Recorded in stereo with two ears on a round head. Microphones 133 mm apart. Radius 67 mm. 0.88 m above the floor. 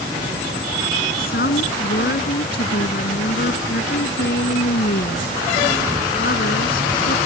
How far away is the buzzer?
I don't hear a buzzer.